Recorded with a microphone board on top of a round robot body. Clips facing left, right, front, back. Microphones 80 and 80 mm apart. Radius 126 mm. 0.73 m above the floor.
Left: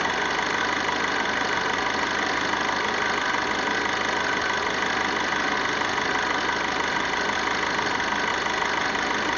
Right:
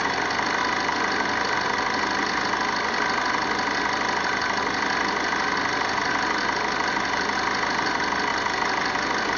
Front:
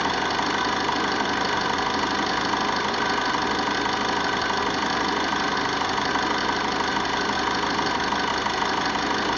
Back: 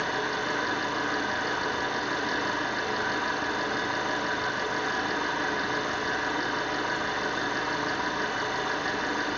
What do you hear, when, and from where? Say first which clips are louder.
0.0 s an engine running: right 1 dB, front 5 dB; 5° right, 2.5 m